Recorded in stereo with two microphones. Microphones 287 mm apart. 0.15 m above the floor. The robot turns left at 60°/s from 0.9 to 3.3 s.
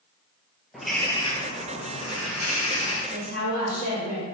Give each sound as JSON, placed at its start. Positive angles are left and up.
{"t": 0.7, "sound": "a bird", "azimuth_deg": 180, "distance_m": 0.8}
{"t": 3.1, "sound": "a woman speaking", "side_deg": -15, "distance_m": 1.9}